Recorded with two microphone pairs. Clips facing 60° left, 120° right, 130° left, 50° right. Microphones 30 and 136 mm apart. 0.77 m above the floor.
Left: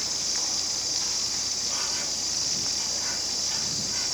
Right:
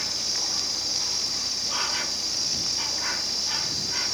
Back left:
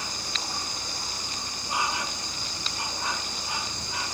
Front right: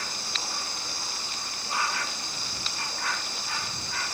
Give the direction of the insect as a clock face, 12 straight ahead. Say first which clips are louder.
Right 1 dB, back left 1 dB; 5 o'clock.